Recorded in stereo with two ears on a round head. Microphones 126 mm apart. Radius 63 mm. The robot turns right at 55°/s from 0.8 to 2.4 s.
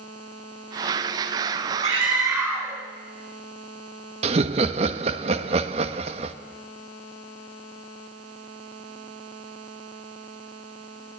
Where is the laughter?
40° right (ahead or behind), 1.4 m.